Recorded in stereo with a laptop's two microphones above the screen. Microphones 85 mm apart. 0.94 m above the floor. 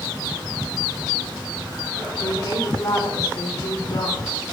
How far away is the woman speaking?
About 2.5 m.